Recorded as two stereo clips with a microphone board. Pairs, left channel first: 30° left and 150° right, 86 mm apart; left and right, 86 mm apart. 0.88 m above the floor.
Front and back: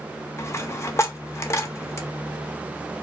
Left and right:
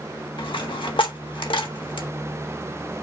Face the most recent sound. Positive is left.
turn(degrees=85)